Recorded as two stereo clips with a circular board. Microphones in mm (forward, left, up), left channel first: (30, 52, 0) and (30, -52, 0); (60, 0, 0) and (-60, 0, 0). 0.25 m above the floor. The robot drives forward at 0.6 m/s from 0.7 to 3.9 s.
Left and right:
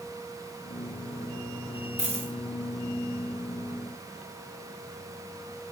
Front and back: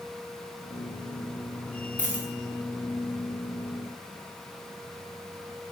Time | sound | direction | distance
2.0 | a dropped coin | 105° right | 3 m